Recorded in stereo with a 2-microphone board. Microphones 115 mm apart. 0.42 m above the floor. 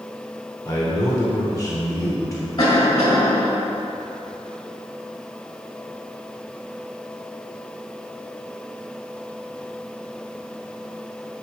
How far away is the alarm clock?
No alarm clock in this recording.